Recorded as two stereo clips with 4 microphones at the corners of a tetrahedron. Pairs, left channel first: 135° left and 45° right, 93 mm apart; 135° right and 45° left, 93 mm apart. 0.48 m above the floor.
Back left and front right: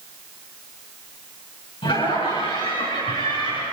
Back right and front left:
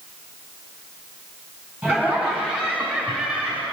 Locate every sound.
1.8 s laughter: 110° left, 6 m; by 3.6 s 115° left, 8 m